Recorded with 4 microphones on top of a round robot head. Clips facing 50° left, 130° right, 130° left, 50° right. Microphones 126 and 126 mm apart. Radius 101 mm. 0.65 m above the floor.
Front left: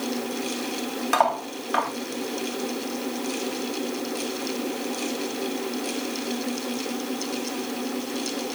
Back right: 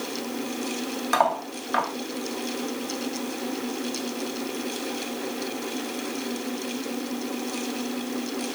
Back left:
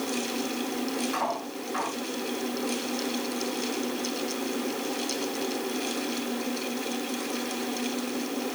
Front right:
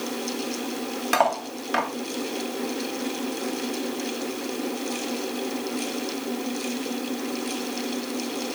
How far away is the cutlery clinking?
About 2 m.